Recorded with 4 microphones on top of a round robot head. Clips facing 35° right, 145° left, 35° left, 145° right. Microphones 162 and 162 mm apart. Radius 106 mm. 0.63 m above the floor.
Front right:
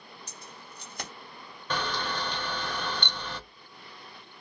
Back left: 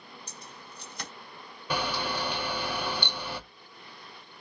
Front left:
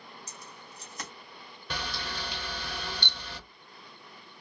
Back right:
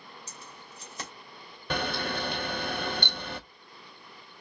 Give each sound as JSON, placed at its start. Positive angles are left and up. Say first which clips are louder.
{"t": 0.3, "sound": "keys jangling", "louder": "even, even", "azimuth_deg": -80, "distance_m": 1.9}
{"t": 1.7, "sound": "a camera shutter", "louder": "back left 1 dB, back right 7 dB", "azimuth_deg": -140, "distance_m": 0.5}